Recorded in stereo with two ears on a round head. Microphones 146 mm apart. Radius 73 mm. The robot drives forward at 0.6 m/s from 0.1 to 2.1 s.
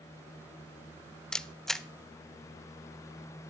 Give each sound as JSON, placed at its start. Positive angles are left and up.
{"t": 1.3, "sound": "a camera shutter", "side_deg": 5, "distance_m": 0.5}